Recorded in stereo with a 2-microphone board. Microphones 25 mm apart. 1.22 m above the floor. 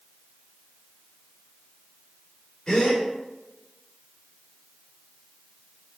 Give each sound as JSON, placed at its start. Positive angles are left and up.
{"t": 2.7, "sound": "a gasp", "side_deg": 35, "distance_m": 3.0}